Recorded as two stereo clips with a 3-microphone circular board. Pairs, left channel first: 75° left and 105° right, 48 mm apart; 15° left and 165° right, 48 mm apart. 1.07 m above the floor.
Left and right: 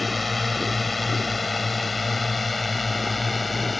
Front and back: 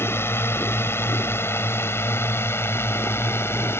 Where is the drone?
15° right.